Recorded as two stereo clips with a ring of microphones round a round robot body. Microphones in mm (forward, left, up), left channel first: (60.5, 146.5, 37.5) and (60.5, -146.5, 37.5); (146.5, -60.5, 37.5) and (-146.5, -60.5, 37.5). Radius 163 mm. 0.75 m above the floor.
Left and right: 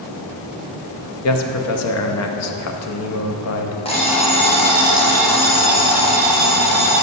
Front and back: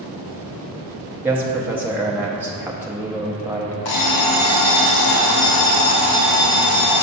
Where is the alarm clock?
20° left, 1.0 m.